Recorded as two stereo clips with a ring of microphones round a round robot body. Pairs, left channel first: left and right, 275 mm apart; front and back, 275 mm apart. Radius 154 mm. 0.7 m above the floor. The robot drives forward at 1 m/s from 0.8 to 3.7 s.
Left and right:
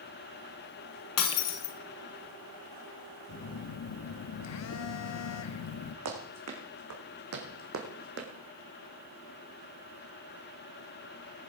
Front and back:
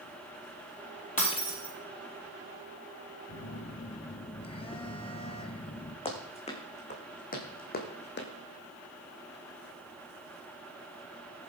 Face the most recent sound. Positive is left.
turn(degrees=-45)